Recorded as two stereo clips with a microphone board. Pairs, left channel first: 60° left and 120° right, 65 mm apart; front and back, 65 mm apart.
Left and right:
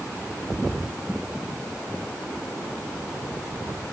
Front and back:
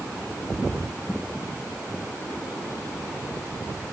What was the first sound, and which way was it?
Only background noise.